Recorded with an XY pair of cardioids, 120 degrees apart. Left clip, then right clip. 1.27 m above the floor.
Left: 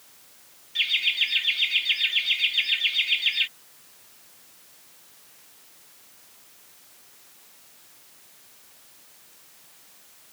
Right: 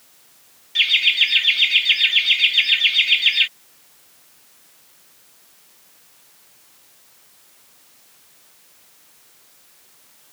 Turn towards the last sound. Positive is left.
turn(degrees=-40)